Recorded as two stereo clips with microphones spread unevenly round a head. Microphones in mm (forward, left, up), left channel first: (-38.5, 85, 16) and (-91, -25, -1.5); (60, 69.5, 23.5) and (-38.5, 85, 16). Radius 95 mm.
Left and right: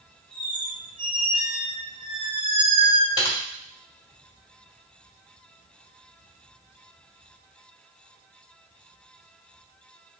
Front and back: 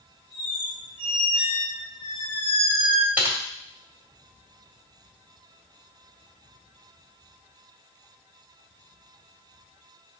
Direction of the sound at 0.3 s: 155° right.